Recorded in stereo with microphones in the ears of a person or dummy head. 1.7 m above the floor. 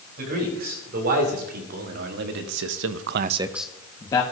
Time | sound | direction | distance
0.2 | a man speaking | 55° right (ahead or behind) | 3.5 m